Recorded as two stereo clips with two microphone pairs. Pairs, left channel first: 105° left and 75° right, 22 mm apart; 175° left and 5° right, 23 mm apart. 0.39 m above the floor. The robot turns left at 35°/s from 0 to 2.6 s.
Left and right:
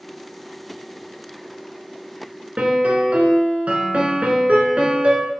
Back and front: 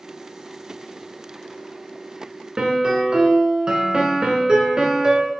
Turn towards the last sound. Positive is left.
turn(degrees=-50)